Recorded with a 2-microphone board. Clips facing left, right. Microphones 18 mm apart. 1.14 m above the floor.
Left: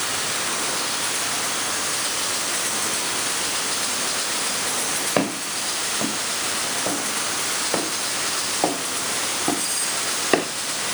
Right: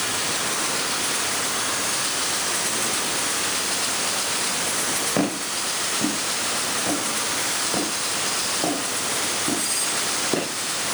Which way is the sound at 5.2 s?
25° left (ahead or behind).